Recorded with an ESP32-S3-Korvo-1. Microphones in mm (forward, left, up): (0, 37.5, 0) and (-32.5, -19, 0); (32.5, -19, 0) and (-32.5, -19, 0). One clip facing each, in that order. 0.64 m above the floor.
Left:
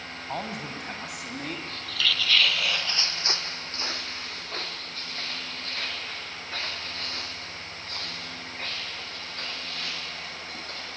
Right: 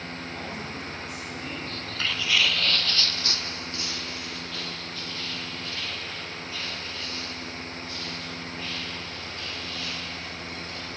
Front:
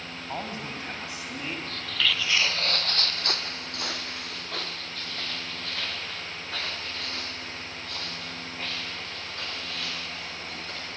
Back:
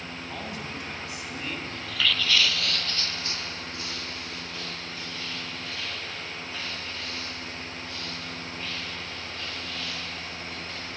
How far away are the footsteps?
About 0.9 m.